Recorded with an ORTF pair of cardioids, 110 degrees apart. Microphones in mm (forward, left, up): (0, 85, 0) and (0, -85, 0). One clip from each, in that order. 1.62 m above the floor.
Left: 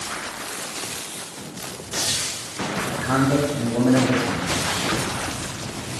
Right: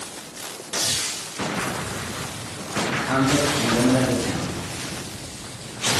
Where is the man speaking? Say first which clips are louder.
Even; 30° left, 0.9 m.